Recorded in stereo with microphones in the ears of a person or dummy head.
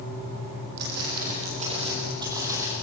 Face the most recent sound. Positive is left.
turn(degrees=-10)  # may be behind; listen again after turning